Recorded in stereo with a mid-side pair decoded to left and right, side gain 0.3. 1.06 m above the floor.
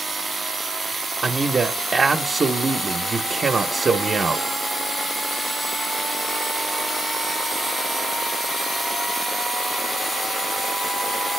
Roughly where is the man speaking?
Ahead right.